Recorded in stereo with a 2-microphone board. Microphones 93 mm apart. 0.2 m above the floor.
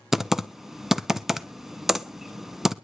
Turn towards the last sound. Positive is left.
turn(degrees=-5)  # may be behind; listen again after turning